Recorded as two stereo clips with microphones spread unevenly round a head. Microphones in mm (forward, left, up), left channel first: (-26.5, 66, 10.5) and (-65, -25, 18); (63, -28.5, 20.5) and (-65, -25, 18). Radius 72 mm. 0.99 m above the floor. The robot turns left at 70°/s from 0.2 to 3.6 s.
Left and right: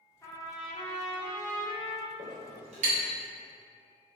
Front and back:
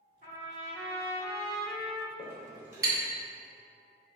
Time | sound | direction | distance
0.2 | a trumpet | 130° left | 1.0 m
2.2 | a clink | 70° right | 0.6 m